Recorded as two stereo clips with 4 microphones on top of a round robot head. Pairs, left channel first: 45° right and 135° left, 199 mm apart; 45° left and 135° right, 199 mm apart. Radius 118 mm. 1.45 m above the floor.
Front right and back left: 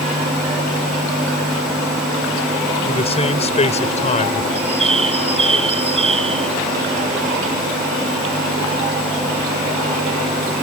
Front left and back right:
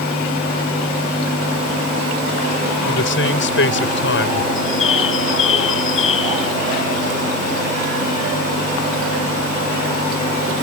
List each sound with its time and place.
2.9 s a man speaking: 20° left; by 4.5 s 10° left
4.5 s a bird: 75° left